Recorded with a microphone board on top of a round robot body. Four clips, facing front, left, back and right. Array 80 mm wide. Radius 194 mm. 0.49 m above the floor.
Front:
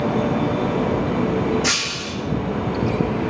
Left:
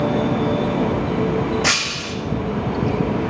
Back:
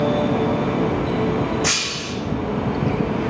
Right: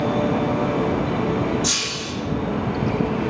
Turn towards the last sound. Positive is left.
turn(degrees=95)